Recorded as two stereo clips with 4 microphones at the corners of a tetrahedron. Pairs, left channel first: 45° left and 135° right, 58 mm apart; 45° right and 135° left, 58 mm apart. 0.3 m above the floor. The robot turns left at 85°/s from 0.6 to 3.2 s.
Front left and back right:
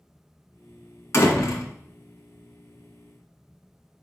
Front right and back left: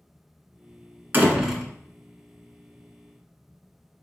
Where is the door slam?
80° left, 1.8 m; by 1.7 s 35° left, 1.8 m.